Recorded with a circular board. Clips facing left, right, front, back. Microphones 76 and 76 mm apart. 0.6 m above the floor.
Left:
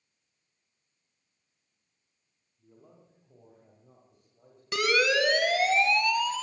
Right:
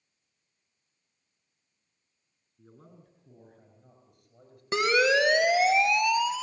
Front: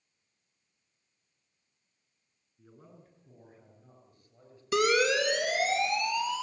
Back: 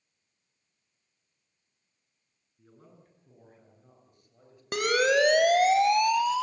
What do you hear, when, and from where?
2.6 s a man speaking: 90° right, 8.5 m; by 4.6 s 100° right, 10.5 m
4.7 s a siren: 150° right, 3 m; by 6.4 s 170° right, 3 m